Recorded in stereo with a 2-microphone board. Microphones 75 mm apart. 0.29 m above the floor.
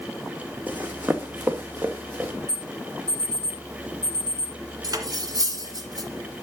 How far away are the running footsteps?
About 1.2 m.